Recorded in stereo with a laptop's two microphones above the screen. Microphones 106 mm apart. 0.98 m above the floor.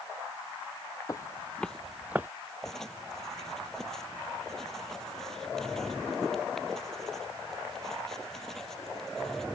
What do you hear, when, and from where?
1.1 s footsteps: 35° left (ahead or behind); by 2.3 s 20° right (ahead or behind)
2.6 s writing: 5° left (ahead or behind)